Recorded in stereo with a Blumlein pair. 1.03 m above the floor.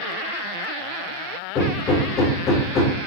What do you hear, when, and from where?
1.6 s hammering: 30° left, 0.8 m